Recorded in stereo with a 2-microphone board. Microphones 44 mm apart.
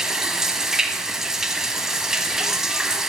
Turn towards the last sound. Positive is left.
turn(degrees=-15)  # may be behind; listen again after turning